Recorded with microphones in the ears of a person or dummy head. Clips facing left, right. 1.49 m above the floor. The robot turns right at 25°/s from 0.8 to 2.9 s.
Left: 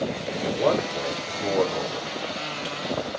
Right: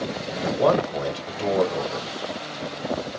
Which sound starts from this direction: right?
A man speaking, at 0.4 s.